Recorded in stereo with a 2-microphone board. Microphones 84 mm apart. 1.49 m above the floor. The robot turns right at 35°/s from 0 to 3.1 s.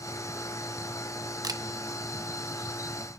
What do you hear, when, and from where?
1.4 s a camera shutter: 45° right (ahead or behind), 0.7 m